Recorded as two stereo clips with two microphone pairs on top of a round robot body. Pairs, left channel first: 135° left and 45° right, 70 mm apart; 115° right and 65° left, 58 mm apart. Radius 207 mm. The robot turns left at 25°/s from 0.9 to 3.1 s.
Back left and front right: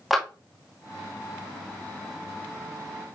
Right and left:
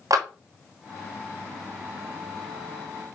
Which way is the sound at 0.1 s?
45° left.